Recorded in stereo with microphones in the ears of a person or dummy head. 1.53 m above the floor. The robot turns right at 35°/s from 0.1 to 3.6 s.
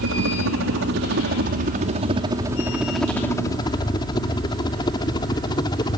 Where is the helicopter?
65° right (ahead or behind); by 6.0 s 25° left (ahead or behind).